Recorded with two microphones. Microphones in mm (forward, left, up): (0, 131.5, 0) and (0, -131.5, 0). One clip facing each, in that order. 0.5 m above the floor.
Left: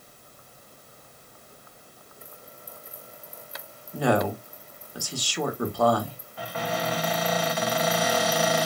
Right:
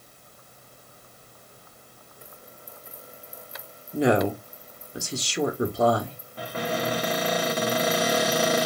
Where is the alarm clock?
No alarm clock in this recording.